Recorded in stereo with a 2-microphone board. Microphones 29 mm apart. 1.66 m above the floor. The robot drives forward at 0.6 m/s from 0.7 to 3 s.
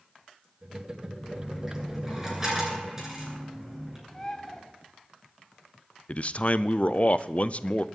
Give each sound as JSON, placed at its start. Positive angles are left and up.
{"t": 1.2, "sound": "a dropped coin", "side_deg": -15, "distance_m": 8.5}
{"t": 4.1, "sound": "a bird", "side_deg": 15, "distance_m": 2.0}
{"t": 6.1, "sound": "a man speaking", "side_deg": 45, "distance_m": 0.6}